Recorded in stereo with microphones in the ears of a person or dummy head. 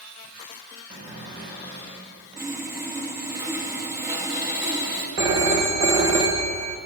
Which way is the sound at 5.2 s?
20° right (ahead or behind).